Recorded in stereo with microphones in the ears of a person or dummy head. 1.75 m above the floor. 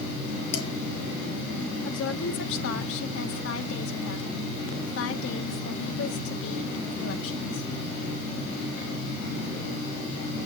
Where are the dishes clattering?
70° left (ahead or behind), 5.5 m.